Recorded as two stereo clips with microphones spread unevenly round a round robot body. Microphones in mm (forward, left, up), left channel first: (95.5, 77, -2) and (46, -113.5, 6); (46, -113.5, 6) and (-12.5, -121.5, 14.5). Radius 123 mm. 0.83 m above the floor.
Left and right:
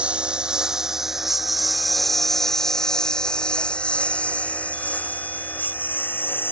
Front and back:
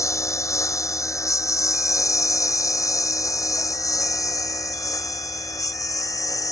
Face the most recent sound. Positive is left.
turn(degrees=-5)